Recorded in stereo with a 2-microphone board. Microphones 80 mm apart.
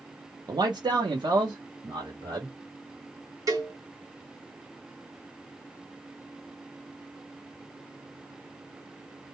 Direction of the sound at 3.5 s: 40° right (ahead or behind).